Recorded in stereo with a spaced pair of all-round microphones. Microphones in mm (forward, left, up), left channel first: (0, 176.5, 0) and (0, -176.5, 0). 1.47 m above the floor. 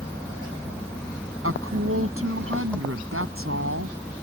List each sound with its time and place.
0.0 s an engine running: 5° left (ahead or behind)
1.4 s a woman speaking: 35° right (ahead or behind)